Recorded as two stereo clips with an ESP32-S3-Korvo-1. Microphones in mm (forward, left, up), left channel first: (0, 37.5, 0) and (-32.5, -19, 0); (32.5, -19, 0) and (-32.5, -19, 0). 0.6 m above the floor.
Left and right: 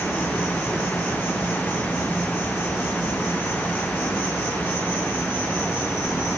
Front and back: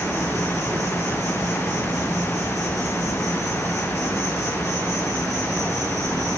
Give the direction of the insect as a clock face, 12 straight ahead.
6 o'clock.